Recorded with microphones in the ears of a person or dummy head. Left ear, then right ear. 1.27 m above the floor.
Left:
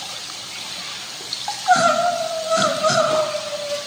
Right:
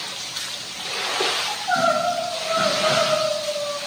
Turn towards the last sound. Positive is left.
turn(degrees=65)  # may be behind; listen again after turning